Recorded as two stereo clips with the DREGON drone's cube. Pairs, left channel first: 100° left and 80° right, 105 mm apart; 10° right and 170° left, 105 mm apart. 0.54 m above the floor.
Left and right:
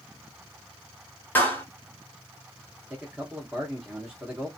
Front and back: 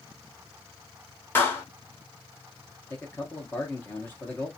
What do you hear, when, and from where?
1.4 s a clap: 40° left, 1.1 m
2.9 s a man speaking: 30° right, 0.9 m